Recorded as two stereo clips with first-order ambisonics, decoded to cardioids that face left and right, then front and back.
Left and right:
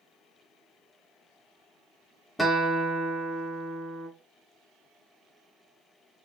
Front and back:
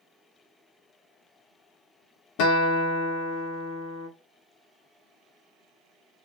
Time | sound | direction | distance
2.4 | a guitar | straight ahead | 0.9 m